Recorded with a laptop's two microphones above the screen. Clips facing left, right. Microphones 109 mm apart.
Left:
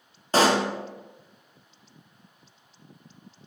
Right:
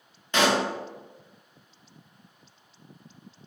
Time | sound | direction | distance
0.3 | a pop | 35° left (ahead or behind) | 0.6 m